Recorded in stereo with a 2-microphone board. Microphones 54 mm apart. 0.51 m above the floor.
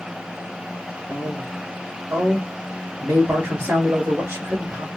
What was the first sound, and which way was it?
A man speaking, 50° right (ahead or behind).